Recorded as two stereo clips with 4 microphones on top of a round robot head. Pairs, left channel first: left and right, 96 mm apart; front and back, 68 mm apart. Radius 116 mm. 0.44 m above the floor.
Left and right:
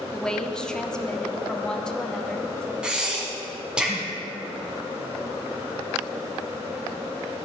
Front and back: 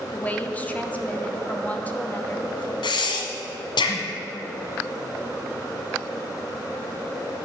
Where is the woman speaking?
20° left, 1.4 m.